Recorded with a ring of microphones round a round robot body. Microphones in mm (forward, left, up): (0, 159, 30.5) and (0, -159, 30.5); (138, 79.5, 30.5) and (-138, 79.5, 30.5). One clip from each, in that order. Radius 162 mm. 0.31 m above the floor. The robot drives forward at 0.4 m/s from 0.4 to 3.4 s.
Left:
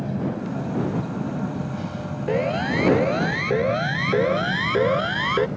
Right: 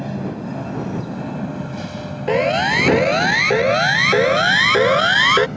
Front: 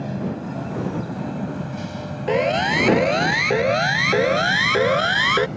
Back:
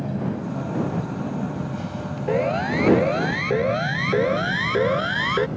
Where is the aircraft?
60° right.